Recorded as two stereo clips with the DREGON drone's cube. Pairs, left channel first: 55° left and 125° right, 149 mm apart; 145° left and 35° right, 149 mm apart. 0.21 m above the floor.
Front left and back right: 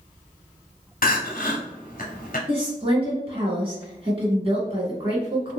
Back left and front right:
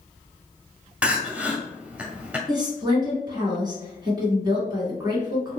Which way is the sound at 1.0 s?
45° left.